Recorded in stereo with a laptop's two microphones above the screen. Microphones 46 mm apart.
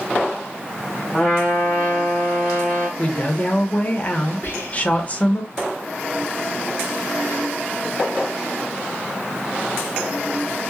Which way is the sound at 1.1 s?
10° left (ahead or behind).